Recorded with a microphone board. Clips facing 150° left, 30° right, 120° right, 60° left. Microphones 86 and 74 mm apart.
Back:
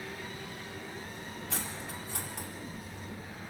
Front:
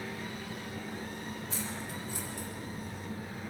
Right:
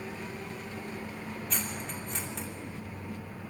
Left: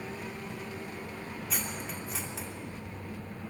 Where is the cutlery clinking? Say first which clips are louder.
Front 1 dB, left 1 dB; 145° left, 3 m.